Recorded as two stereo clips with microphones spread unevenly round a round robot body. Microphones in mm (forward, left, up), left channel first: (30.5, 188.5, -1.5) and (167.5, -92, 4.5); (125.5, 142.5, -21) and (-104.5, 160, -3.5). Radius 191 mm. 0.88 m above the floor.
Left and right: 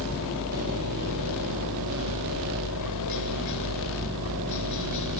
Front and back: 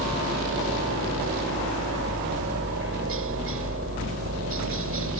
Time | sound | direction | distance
0.0 | a helicopter | 155° left | ?